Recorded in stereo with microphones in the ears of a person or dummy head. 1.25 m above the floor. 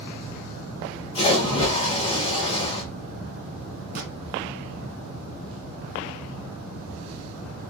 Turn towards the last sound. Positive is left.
turn(degrees=-55)  # may be behind; listen again after turning